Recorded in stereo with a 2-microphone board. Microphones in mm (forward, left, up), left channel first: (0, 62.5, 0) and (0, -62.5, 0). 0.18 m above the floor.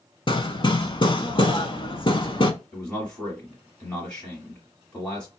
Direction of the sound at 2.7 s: 15° left (ahead or behind).